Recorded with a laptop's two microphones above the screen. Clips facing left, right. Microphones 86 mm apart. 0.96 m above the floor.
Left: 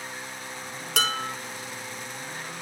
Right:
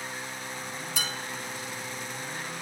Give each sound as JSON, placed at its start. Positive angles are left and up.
{"t": 1.0, "sound": "dishes clattering", "side_deg": 75, "distance_m": 1.2}